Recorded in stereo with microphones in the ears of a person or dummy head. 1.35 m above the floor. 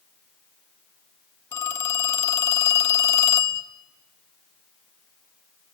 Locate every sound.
1.5 s a phone ringing: 15° left (ahead or behind), 1.1 m